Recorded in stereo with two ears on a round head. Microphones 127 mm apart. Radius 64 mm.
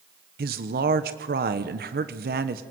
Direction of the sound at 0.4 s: 75° right (ahead or behind).